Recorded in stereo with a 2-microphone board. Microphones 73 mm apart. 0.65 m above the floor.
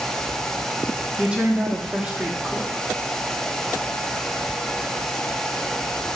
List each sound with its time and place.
1.2 s a woman speaking: 15° right (ahead or behind), 1.1 m